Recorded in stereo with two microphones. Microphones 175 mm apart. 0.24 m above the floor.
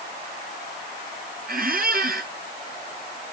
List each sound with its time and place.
1.5 s a squeak: 60° right (ahead or behind), 0.8 m